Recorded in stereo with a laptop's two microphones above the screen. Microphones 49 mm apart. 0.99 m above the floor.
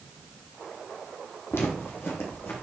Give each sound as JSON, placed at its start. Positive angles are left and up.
{"t": 1.5, "sound": "footsteps", "side_deg": 60, "distance_m": 2.0}